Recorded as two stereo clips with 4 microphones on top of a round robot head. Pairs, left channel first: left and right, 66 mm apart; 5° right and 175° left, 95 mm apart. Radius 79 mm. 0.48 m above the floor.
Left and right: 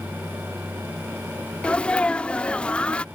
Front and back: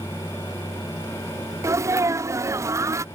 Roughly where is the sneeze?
Behind left.